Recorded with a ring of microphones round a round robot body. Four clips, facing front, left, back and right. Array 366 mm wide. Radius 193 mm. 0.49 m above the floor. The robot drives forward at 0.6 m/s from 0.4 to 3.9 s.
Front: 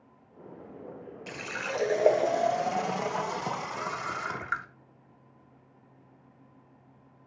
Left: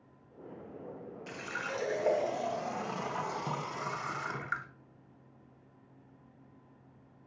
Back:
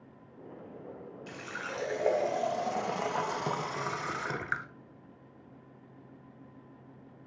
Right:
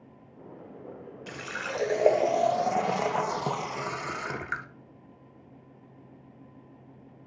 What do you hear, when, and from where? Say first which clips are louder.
1.3 s a running tap: right 4 dB, front 5 dB; 35° right, 1.4 m; by 4.7 s 130° right, 1.1 m